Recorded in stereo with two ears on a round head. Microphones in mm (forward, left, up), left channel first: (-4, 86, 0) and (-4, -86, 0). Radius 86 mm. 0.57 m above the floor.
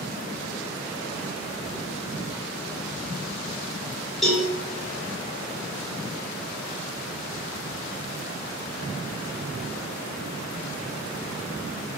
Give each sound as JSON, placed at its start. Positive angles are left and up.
{"t": 4.2, "sound": "a cowbell", "side_deg": 0, "distance_m": 0.8}